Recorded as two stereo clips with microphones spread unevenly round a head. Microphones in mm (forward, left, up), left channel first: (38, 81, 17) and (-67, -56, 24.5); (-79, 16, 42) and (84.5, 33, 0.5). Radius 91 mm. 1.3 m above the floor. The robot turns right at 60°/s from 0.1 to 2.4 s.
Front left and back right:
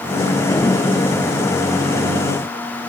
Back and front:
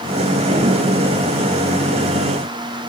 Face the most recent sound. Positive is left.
No sound to turn to.